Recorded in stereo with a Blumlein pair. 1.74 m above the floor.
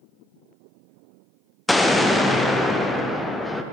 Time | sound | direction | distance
1.7 | an explosion | 5° left | 0.6 m